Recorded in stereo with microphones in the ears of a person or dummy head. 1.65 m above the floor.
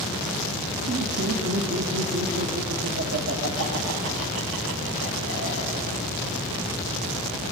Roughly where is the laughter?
Right.